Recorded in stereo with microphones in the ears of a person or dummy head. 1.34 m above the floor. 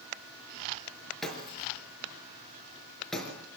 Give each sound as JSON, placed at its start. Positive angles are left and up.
{"t": 1.2, "sound": "breaking glass", "side_deg": 0, "distance_m": 4.0}